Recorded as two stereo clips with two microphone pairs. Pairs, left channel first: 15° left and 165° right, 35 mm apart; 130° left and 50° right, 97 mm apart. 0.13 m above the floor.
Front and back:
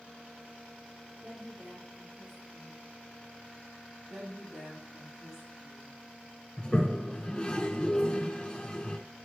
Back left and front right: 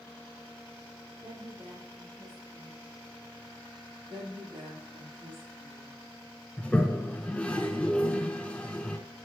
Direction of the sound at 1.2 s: 85° right.